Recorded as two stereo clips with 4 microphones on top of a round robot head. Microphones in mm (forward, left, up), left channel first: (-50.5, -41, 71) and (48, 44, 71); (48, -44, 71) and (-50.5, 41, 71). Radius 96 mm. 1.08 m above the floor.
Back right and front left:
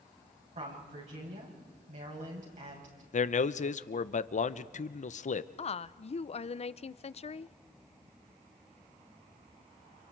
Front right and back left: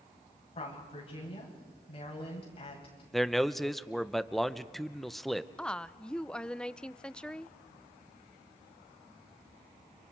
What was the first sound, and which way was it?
A woman speaking, 5° left.